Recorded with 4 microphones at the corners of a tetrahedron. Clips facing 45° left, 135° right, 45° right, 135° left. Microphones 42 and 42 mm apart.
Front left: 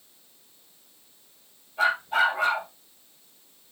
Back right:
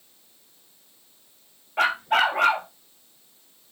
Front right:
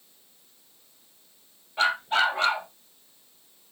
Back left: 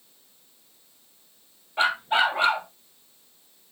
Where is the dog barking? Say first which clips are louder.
Back right 2 dB, back left 1 dB; 155° right, 1.8 m.